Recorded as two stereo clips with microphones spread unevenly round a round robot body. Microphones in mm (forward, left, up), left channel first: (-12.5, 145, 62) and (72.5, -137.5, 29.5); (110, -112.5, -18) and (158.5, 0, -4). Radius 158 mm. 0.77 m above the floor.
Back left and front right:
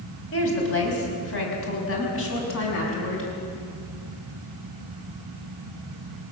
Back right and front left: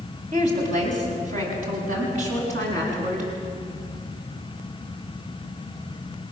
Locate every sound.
0.3 s a woman speaking: 60° left, 5 m